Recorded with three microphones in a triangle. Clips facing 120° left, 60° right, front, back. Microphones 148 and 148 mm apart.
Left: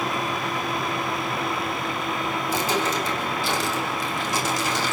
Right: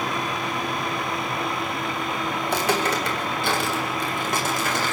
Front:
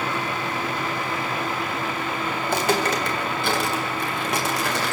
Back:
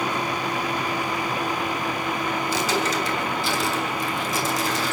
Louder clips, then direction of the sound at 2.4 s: Right 2 dB, front 4 dB; 35° right.